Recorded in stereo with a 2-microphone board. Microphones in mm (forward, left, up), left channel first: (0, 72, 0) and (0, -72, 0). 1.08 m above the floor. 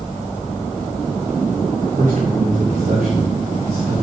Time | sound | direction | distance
2.0 | a man speaking | 75° right (ahead or behind) | 5.5 m